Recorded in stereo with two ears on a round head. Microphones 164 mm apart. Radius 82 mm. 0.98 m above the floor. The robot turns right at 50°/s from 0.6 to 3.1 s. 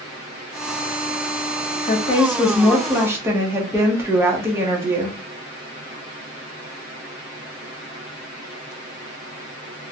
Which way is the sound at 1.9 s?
130° left.